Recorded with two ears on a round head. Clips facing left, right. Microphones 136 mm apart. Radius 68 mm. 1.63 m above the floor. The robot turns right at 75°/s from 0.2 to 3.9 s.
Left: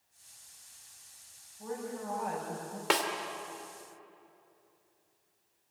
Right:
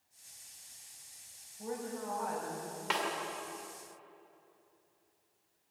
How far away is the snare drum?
About 2.5 m.